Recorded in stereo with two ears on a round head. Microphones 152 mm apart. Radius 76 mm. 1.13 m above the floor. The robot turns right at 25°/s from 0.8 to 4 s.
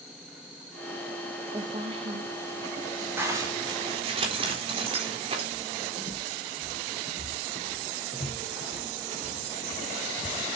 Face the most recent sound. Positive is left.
turn(degrees=30)  # may be behind; listen again after turning